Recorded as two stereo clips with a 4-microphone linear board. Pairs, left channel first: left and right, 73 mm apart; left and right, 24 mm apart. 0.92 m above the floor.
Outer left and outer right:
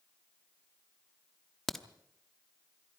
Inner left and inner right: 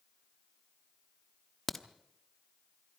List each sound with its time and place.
1.7 s a crack: 5° left (ahead or behind), 1.0 m